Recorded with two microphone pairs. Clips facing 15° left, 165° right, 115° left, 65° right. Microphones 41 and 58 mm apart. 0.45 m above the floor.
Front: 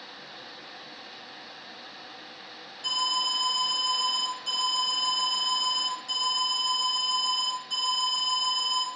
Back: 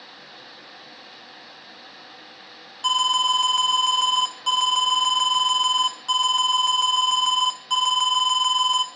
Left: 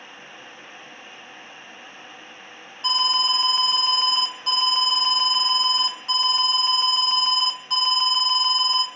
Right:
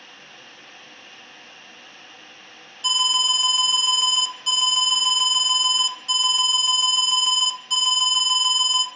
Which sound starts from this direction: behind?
An alarm, at 2.8 s.